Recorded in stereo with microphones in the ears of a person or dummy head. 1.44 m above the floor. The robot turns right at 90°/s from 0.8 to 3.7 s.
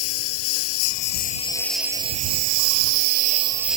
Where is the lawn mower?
95° left; by 3.8 s 5° right.